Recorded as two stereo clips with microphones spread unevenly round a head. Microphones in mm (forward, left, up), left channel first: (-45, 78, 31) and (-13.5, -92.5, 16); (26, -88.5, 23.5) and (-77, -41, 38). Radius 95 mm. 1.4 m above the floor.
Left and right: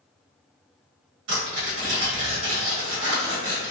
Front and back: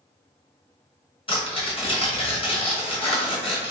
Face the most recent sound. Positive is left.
turn(degrees=-65)